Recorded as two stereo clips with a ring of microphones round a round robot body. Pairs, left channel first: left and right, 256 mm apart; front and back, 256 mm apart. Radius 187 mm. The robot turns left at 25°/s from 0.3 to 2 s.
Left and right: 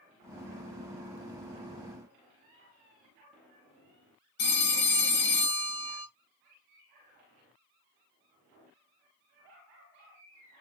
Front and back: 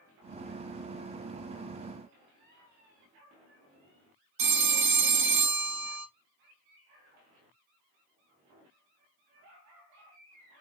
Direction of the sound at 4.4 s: 150° left.